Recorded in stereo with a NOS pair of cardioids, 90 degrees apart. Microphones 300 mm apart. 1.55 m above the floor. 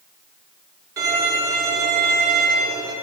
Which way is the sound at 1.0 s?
40° right.